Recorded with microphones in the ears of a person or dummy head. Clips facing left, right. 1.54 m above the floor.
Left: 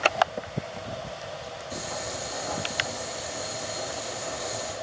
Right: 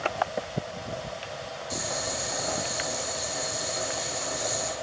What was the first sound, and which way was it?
Boiling, 90° right.